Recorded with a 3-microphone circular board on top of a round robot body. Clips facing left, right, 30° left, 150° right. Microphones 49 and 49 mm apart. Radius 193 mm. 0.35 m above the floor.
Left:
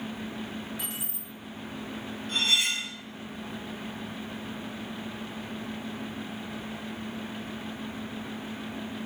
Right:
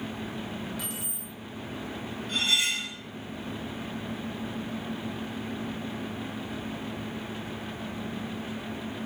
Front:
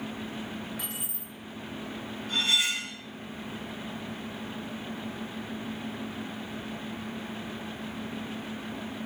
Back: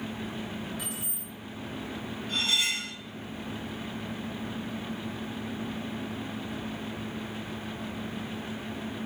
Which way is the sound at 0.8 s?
30° left.